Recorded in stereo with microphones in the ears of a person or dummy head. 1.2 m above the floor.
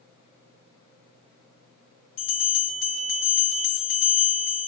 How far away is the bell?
About 3.5 m.